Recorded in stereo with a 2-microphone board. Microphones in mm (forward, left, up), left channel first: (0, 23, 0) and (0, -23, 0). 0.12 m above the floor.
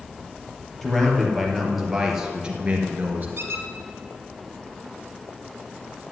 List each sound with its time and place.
0.8 s a man speaking: 5° left (ahead or behind), 3.5 m; by 3.3 s 35° right (ahead or behind), 2 m
3.4 s a squeak: 55° right (ahead or behind), 1.5 m